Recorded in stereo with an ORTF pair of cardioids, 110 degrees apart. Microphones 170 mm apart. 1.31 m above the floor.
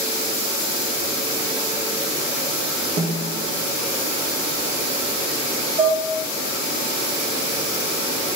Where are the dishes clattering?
40° right, 0.9 m.